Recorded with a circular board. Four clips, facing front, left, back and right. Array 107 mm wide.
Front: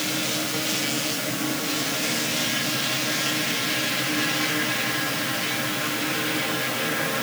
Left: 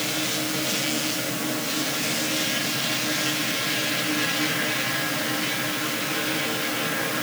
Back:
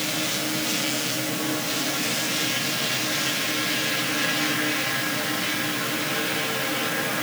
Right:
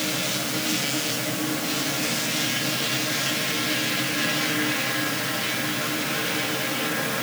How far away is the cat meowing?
No cat meowing in this recording.